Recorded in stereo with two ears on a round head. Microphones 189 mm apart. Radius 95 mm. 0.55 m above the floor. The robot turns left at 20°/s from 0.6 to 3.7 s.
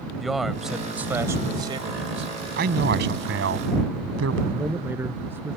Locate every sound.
0.2 s a man speaking: straight ahead; by 2.3 s 35° right
2.6 s a man speaking: 50° right (ahead or behind); by 4.4 s 70° right (ahead or behind)
4.5 s a man speaking: 10° right (ahead or behind)